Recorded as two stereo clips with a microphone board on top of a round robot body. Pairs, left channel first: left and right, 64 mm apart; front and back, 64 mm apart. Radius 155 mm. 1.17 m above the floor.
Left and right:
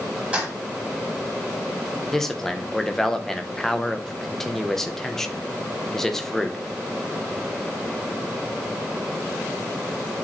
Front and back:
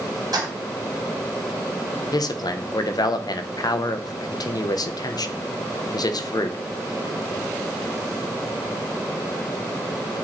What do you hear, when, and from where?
0.3 s keys jangling: 160° right, 2.5 m
2.1 s a man speaking: 5° left, 1.1 m